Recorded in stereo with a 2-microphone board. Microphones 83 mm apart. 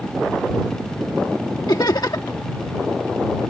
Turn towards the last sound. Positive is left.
turn(degrees=60)  # may be behind; listen again after turning